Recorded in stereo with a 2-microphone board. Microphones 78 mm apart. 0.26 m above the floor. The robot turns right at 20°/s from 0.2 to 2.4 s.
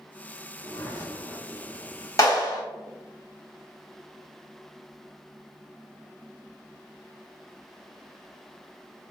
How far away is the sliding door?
About 1.4 m.